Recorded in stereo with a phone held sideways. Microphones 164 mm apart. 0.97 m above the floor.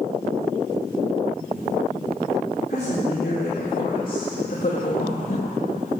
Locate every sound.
2.7 s a woman speaking: 65° left (ahead or behind), 3 m; by 5.6 s 40° left (ahead or behind), 1.1 m